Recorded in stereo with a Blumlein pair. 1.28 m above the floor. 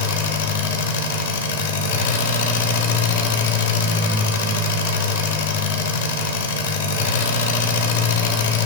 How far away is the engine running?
About 1.0 m.